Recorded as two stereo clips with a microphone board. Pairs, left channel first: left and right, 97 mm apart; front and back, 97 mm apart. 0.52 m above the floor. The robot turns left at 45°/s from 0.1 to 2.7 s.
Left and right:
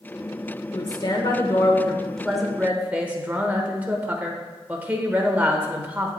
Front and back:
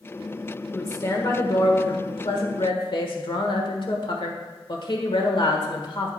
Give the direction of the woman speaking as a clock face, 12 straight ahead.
10 o'clock.